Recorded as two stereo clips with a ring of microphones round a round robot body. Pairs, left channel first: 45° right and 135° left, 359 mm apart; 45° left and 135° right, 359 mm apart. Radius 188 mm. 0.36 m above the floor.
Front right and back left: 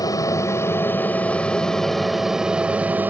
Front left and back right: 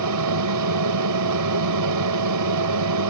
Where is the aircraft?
120° right; by 3.1 s 140° right.